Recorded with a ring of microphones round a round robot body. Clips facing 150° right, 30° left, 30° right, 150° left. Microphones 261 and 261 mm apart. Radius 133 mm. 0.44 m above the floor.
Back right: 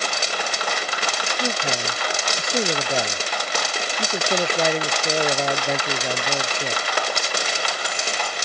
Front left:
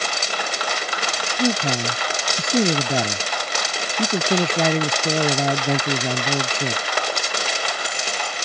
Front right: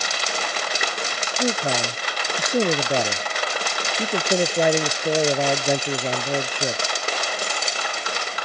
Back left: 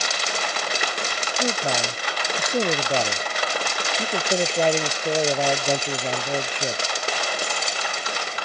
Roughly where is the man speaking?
Ahead left.